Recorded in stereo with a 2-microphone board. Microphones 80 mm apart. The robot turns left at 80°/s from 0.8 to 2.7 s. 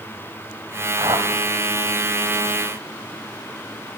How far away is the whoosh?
About 1.8 m.